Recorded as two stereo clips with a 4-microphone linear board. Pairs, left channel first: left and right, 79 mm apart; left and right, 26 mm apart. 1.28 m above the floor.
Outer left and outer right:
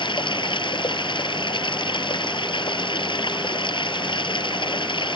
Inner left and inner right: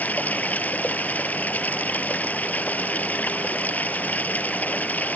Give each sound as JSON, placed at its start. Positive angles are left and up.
{"t": 0.0, "sound": "running water", "side_deg": 90}